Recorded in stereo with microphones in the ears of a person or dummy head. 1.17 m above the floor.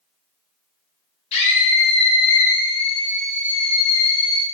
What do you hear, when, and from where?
1.3 s a scream: 35° left (ahead or behind), 1.0 m